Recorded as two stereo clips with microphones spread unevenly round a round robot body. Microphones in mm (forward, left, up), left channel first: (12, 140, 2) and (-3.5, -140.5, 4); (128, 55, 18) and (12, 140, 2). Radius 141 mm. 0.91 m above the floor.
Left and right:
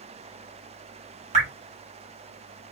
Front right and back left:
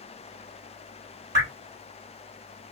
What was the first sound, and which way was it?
Dripping, 160° right.